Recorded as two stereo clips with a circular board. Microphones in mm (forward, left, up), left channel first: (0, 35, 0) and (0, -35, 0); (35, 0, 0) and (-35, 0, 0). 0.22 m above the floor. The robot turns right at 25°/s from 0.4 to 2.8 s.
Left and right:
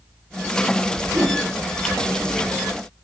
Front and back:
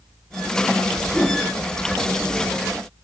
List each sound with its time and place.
1.1 s a whoosh: 65° right, 0.7 m; by 1.4 s 60° right, 0.7 m